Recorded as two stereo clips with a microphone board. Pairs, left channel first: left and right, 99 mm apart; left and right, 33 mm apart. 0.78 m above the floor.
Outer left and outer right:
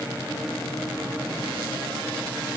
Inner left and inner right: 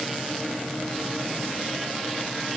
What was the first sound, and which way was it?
Only background noise.